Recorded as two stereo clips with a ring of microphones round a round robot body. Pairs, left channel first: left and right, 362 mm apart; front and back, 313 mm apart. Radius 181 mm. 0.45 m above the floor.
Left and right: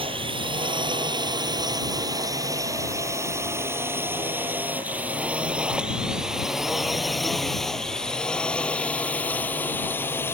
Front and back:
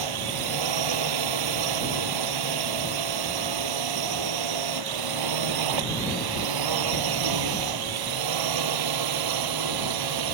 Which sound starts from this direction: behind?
A drone, at 0.0 s.